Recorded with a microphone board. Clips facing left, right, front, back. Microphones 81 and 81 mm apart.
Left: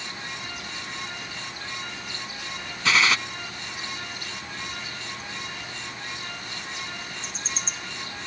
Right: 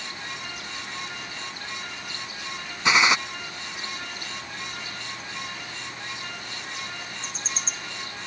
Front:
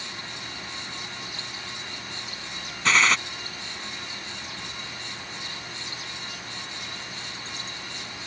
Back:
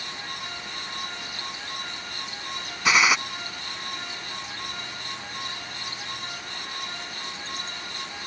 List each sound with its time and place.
2.9 s a gunshot: 120° right